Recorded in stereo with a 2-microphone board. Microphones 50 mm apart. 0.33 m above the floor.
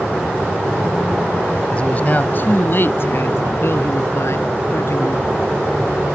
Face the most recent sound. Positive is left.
turn(degrees=65)  # may be behind; listen again after turning